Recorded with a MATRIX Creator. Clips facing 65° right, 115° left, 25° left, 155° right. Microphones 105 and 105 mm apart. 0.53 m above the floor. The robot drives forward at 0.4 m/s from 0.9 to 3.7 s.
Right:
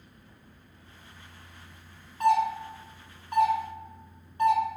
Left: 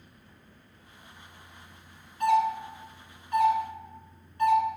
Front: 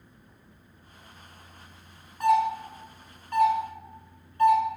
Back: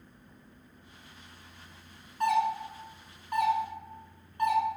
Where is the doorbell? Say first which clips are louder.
Even, front 4 dB; 55° right, 1.2 m; by 4.6 s 110° right, 1.2 m.